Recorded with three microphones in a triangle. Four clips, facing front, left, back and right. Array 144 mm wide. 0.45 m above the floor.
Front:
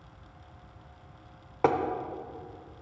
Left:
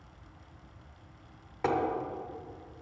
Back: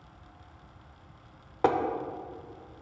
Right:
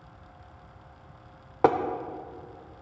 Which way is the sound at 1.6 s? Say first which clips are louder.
Right 8 dB, even; 85° right.